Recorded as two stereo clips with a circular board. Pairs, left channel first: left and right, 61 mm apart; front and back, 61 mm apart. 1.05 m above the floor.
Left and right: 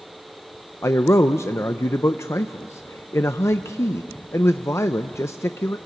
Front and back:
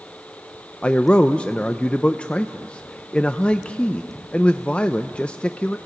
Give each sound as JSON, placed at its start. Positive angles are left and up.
{"t": 0.8, "sound": "a man speaking", "azimuth_deg": 65, "distance_m": 0.5}